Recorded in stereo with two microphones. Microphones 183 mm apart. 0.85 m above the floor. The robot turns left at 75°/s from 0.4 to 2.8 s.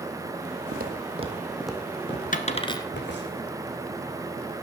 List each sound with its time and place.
0.7 s footsteps: 55° right (ahead or behind), 1.4 m; by 3.3 s 75° left (ahead or behind), 3 m
2.3 s a dropped coin: 45° left (ahead or behind), 1.3 m; by 2.9 s 20° left (ahead or behind), 1.3 m